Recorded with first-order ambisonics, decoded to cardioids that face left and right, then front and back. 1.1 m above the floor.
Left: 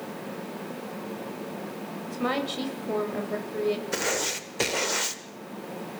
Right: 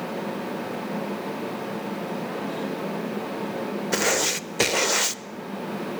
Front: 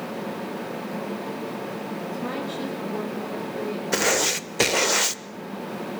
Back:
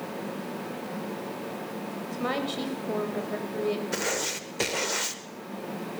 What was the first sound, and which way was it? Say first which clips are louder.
A woman speaking: left 1 dB, back 3 dB; 120° left.